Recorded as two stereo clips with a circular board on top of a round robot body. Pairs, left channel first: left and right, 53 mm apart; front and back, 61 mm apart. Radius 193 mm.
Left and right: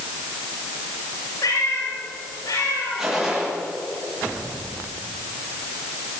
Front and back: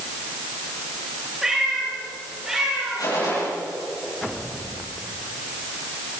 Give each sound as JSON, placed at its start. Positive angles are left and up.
{"t": 1.4, "sound": "a cat meowing", "azimuth_deg": 95, "distance_m": 7.5}
{"t": 3.0, "sound": "a gunshot", "azimuth_deg": -10, "distance_m": 9.5}